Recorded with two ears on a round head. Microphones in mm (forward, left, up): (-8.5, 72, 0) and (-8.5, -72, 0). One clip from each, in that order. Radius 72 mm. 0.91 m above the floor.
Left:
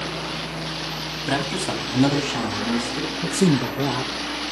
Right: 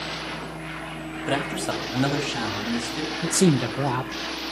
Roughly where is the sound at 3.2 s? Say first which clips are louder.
Even; right.